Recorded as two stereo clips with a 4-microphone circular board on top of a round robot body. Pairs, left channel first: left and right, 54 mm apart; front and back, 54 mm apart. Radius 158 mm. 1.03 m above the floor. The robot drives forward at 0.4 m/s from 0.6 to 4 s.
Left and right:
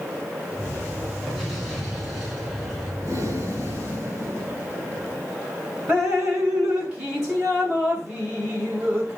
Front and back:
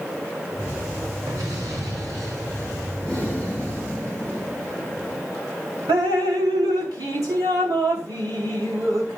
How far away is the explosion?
About 3.5 m.